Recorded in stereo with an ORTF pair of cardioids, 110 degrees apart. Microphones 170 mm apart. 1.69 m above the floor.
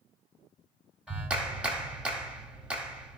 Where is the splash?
No splash in this recording.